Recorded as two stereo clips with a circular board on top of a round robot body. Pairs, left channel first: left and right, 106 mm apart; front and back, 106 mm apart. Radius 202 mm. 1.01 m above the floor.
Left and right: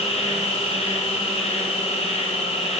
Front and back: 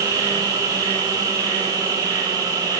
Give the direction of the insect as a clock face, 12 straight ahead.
8 o'clock.